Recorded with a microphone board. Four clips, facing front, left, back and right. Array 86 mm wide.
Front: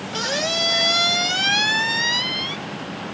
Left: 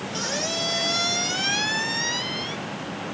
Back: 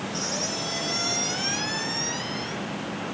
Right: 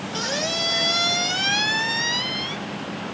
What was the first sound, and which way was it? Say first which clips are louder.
A squeak: right 3 dB, front 6 dB; 15° right.